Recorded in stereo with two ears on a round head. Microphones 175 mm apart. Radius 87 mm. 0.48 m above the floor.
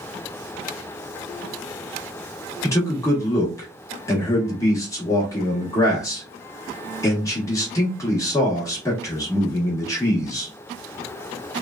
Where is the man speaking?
20° left (ahead or behind), 1.0 m.